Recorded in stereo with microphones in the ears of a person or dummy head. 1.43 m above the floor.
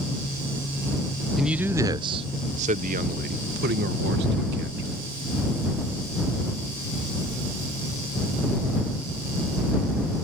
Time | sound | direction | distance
1.4 | a man speaking | centre (ahead or behind) | ?